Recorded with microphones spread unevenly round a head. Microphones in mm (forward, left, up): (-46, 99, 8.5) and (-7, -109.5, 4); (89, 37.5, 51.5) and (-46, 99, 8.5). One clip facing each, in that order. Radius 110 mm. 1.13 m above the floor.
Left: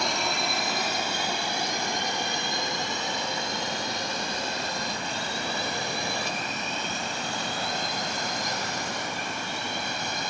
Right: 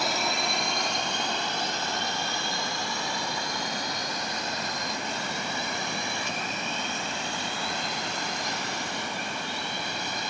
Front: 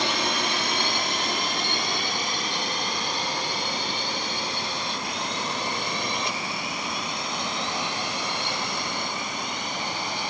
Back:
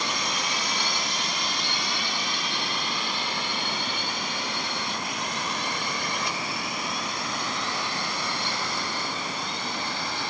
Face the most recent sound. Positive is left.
turn(degrees=50)